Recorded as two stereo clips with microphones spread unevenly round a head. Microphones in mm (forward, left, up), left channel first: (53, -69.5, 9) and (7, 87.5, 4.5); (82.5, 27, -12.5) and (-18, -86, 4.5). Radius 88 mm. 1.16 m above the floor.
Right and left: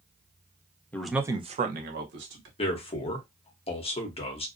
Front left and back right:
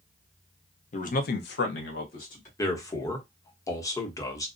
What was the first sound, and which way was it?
A man speaking, 5° left.